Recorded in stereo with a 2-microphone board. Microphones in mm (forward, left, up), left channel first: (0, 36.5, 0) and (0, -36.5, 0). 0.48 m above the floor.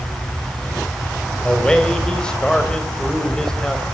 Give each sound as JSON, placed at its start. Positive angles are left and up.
{"t": 1.4, "sound": "a man speaking", "side_deg": 10, "distance_m": 3.0}